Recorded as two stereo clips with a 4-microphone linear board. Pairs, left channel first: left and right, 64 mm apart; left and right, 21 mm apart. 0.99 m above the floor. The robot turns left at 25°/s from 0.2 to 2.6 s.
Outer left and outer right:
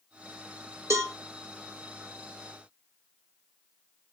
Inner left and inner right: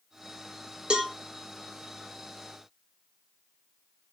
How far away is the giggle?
I don't hear a giggle.